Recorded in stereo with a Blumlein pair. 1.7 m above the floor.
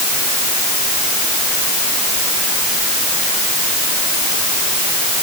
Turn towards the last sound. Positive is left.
No sound to turn to.